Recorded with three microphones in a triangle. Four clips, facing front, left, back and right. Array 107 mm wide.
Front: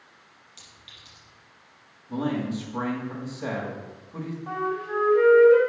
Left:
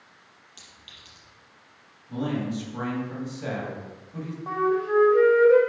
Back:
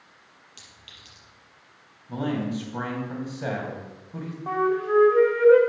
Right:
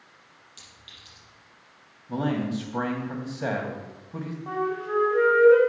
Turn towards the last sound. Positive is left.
turn(degrees=160)